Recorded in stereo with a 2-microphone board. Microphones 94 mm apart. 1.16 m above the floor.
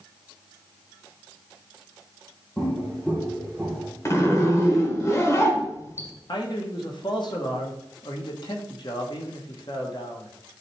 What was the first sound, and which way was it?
Footsteps, 15° left (ahead or behind).